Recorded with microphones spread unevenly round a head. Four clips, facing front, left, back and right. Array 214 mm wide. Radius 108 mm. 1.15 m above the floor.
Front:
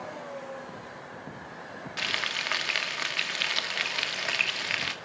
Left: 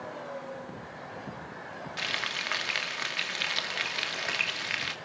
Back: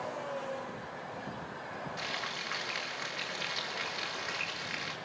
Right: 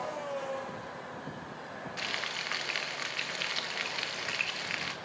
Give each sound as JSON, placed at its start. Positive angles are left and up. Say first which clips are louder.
{"t": 2.0, "sound": "frying", "louder": "left 4 dB, front 4 dB", "azimuth_deg": 25, "distance_m": 2.5}